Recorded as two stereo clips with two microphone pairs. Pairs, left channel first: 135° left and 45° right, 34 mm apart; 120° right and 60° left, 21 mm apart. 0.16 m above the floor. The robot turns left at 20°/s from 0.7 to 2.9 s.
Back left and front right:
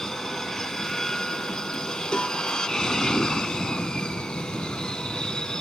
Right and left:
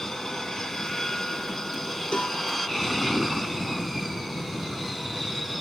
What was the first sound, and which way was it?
An aircraft, 160° right.